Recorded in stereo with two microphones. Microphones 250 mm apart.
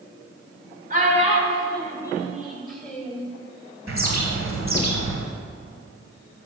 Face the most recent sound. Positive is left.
turn(degrees=-55)  # may be behind; listen again after turning